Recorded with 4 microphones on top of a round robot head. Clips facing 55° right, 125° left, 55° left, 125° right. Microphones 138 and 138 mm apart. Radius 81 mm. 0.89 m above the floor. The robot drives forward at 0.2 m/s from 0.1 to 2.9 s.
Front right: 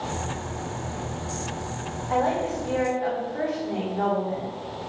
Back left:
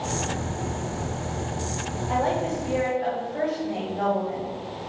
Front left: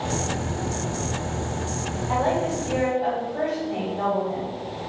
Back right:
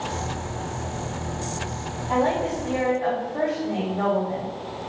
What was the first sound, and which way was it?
A woman speaking, 160° left.